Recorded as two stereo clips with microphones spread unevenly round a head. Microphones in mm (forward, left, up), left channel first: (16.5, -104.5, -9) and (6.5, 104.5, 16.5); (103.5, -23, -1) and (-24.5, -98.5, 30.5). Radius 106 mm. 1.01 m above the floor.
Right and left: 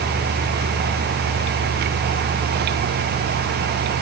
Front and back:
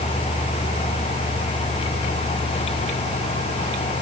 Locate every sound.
Only background noise.